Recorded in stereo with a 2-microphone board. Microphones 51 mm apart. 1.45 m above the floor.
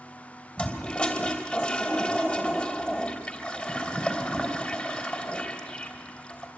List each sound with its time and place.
0.6 s a toilet flushing: 25° left (ahead or behind), 3 m